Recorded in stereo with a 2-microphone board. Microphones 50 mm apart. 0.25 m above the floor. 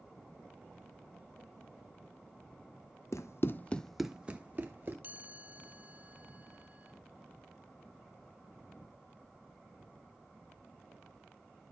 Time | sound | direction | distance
3.1 | running footsteps | 75° left (ahead or behind) | 0.9 m
5.0 | a chime | 40° right (ahead or behind) | 1.2 m